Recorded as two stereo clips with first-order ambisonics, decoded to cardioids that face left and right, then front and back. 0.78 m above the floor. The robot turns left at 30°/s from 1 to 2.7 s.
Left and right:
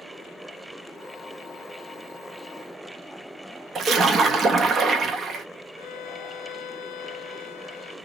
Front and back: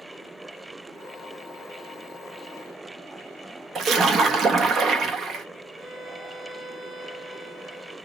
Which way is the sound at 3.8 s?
140° right.